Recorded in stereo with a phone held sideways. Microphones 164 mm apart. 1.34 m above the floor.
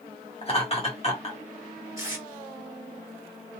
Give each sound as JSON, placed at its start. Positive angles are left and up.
{"t": 0.4, "sound": "laughter", "side_deg": 40, "distance_m": 1.5}
{"t": 2.0, "sound": "tape being pulled", "side_deg": -20, "distance_m": 1.4}